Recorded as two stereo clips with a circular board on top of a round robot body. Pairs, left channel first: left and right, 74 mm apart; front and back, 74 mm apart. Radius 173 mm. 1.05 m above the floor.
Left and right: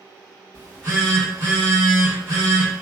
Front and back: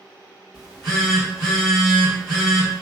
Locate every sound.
0.5 s a phone buzzing: 140° right, 1.7 m